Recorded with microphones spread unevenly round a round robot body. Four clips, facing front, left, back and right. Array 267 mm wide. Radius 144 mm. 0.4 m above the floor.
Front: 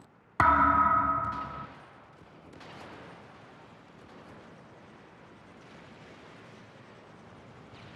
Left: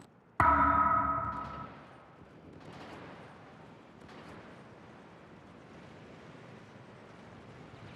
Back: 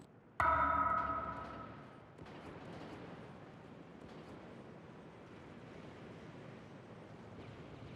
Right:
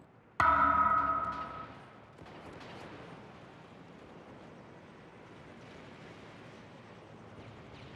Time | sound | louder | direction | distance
0.4 | a thud | left 1 dB, front 10 dB | 20° left | 1.1 m